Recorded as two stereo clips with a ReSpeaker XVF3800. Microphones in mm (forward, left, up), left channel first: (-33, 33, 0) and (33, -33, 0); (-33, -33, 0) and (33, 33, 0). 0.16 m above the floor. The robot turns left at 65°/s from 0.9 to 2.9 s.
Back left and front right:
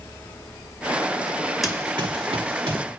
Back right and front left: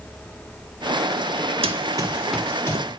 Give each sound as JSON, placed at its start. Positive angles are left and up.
{"t": 1.6, "sound": "running footsteps", "azimuth_deg": 45, "distance_m": 0.5}